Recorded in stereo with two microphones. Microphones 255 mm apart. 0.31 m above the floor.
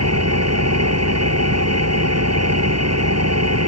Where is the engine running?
75° right (ahead or behind).